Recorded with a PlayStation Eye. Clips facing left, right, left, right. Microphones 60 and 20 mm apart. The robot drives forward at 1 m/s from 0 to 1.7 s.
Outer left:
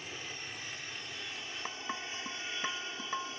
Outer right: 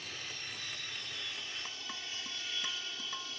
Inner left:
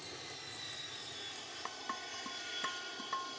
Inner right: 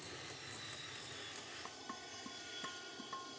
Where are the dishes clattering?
30° left (ahead or behind); by 3.4 s 35° left (ahead or behind).